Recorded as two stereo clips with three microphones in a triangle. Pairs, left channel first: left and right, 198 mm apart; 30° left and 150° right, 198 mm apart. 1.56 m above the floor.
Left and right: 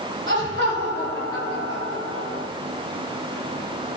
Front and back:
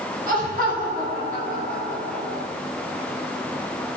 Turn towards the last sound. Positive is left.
turn(degrees=-105)